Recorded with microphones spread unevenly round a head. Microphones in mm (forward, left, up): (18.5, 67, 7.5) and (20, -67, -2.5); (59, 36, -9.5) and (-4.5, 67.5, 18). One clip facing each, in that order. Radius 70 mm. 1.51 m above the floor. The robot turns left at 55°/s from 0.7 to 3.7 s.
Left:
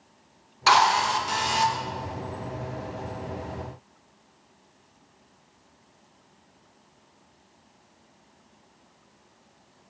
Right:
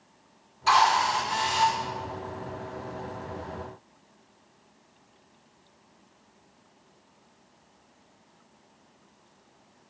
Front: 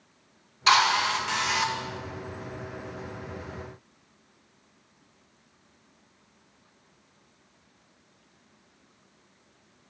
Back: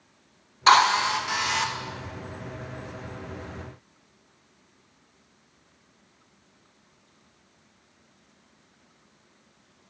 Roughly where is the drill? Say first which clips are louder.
Left 1 dB, back 4 dB; left.